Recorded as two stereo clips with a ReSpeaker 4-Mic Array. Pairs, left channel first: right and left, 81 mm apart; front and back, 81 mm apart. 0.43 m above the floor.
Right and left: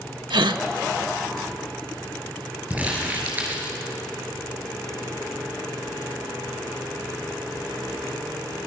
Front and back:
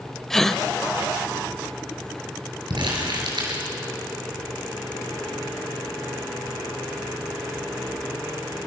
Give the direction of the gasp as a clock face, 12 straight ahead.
9 o'clock.